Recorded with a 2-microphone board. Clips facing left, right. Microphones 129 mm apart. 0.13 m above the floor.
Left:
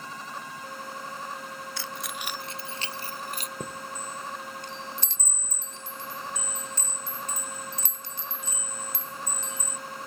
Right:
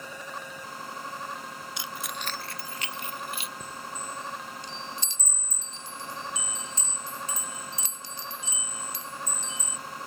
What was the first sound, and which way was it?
Keys jangling, 20° right (ahead or behind).